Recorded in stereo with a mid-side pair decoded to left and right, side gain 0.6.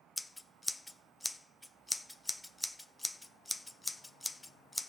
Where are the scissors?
5° left, 0.7 m.